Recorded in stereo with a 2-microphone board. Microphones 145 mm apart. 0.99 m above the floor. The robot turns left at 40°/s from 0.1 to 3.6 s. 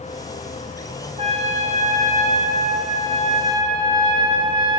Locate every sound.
1.2 s a trumpet: 50° right, 0.7 m; by 4.8 s 145° right, 0.7 m